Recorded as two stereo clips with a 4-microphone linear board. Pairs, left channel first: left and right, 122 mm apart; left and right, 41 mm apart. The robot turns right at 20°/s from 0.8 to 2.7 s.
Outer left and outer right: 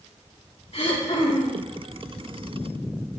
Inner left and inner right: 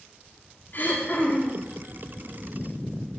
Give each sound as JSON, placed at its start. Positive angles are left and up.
{"t": 0.7, "sound": "throat clearing", "side_deg": 50, "distance_m": 2.5}